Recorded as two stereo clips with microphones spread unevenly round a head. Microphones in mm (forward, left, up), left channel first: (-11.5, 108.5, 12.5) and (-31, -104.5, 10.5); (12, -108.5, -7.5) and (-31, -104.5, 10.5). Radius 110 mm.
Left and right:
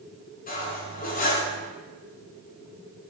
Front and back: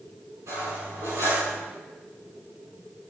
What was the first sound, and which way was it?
Cutlery clinking, 135° left.